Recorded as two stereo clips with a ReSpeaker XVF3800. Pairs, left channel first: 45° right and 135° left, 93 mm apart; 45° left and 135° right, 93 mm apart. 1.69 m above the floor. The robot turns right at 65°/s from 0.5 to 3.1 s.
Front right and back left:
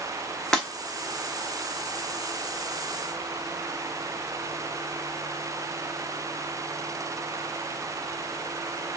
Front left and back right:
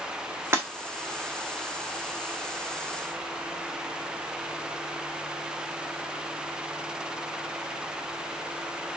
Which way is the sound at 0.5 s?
120° right.